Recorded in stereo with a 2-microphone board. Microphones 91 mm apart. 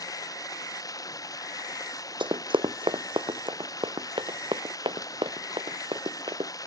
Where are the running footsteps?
60° right (ahead or behind); by 6.5 s 65° right (ahead or behind).